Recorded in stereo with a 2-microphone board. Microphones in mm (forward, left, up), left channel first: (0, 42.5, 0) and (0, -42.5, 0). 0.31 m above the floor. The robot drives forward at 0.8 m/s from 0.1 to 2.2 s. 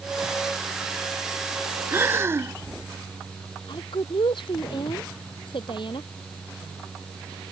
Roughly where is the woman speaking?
Left.